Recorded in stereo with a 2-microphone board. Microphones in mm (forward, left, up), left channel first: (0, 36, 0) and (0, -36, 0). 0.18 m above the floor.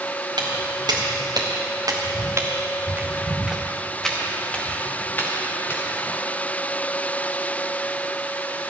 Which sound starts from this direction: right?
Footsteps, at 0.4 s.